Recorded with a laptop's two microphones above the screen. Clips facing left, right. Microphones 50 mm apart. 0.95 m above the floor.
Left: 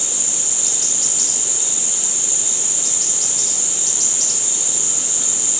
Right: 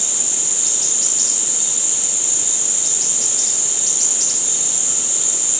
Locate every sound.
Only background noise.